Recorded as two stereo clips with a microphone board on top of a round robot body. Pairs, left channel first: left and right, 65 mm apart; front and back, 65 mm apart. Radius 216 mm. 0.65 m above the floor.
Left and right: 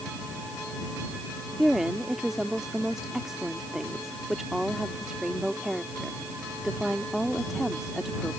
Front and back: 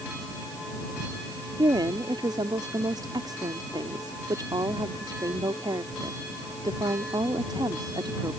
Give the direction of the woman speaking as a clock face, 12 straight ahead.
6 o'clock.